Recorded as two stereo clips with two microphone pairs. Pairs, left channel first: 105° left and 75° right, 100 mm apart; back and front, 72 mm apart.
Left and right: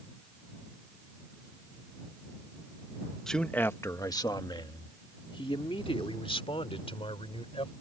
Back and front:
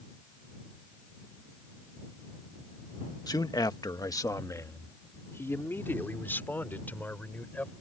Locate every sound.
3.3 s a man speaking: 170° right; by 7.7 s 110° left